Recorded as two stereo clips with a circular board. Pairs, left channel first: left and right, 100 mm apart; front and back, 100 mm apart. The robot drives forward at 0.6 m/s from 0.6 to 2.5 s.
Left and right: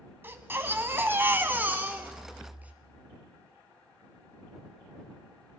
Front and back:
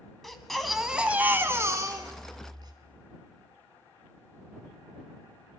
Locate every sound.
0.2 s a baby crying: 85° right, 1.1 m; by 2.7 s 160° right, 1.5 m